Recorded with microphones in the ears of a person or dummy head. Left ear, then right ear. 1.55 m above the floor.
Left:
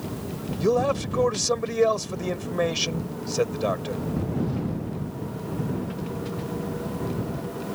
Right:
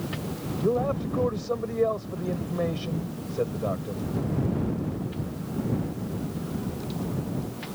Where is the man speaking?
65° left (ahead or behind).